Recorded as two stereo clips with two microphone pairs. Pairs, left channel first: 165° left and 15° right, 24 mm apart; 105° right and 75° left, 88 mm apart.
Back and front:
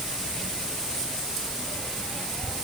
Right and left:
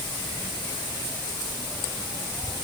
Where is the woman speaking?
I don't hear a woman speaking.